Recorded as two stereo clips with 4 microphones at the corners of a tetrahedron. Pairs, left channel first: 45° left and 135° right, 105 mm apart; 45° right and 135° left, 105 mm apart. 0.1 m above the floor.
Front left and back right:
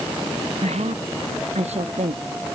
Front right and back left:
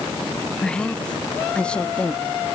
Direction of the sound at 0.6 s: 125° right.